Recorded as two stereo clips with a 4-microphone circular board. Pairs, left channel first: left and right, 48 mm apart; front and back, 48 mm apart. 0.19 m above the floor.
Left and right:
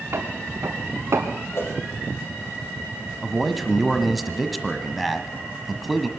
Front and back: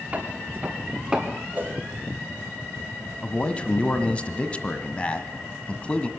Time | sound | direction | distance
0.1 | footsteps | 120° right | 4.5 m
1.5 | a whoosh | 125° left | 5.5 m
3.2 | a man speaking | straight ahead | 1.3 m